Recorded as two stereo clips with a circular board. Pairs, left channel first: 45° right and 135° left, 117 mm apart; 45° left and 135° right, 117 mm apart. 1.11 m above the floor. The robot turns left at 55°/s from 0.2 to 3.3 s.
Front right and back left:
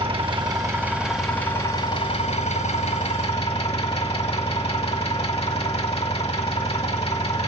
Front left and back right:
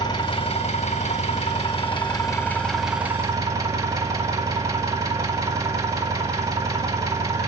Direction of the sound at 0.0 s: 100° left.